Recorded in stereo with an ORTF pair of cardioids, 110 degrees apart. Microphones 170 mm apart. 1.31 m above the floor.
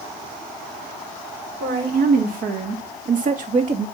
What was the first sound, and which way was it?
A woman speaking, 60° right.